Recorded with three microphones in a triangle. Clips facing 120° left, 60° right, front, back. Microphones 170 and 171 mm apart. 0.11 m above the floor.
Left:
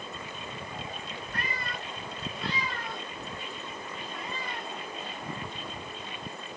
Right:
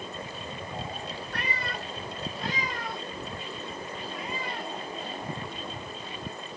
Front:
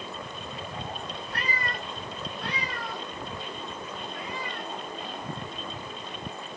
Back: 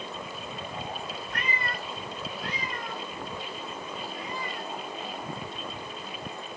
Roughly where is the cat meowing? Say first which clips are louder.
Right 2 dB, front 1 dB; ahead right.